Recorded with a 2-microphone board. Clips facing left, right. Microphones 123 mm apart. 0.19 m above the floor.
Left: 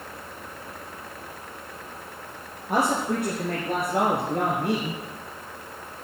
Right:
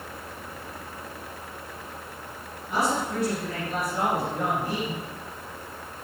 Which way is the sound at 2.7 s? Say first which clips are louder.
Left 3 dB; 55° left (ahead or behind).